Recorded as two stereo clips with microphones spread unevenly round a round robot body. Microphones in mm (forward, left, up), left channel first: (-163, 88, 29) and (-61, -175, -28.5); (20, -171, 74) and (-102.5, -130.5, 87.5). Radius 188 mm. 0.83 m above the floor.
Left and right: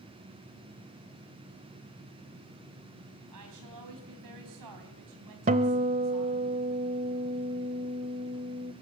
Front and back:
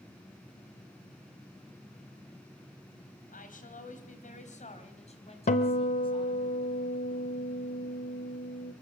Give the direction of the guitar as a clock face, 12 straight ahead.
12 o'clock.